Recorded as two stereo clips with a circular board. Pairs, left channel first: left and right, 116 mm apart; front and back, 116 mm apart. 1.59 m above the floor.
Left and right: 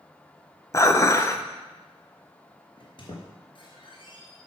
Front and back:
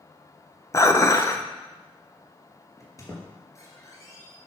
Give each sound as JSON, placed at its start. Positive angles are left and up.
{"t": 0.7, "sound": "dishes clattering", "azimuth_deg": 45, "distance_m": 0.7}
{"t": 2.8, "sound": "a squeak", "azimuth_deg": 60, "distance_m": 3.0}